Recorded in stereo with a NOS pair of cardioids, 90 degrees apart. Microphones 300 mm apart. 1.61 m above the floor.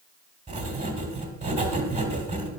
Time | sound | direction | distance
0.5 | writing | 20° right | 3 m